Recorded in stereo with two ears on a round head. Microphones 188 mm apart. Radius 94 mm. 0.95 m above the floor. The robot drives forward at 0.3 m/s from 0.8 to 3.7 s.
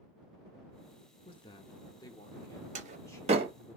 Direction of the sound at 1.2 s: 25° left (ahead or behind).